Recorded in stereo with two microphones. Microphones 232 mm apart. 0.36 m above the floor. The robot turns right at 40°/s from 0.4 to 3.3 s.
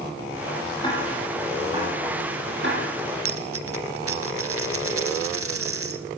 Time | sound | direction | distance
0.8 | ticking | 20° left (ahead or behind) | 9.5 m
3.2 | a dropped coin | 75° right (ahead or behind) | 2 m